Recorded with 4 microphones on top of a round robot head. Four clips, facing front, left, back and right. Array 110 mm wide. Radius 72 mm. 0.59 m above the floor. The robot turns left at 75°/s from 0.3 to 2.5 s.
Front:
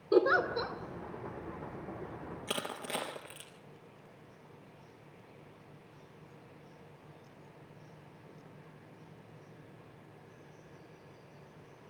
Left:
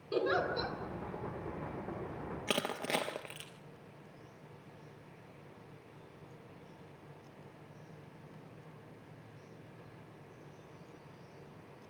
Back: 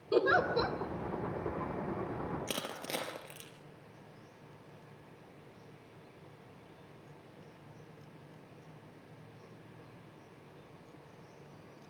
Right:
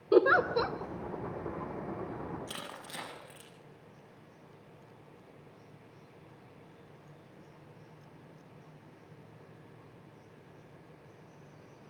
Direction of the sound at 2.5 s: 105° left.